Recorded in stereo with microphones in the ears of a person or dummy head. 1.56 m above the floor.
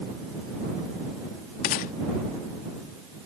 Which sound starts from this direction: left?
A gunshot, at 1.6 s.